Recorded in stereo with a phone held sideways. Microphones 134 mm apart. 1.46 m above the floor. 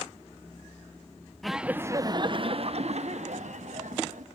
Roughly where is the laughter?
Centre.